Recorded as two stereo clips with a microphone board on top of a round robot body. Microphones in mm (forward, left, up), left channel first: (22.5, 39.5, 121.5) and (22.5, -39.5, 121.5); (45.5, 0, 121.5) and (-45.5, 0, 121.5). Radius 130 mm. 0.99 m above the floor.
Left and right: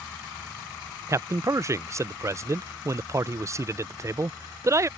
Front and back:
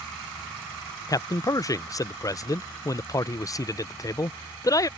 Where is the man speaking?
45° right.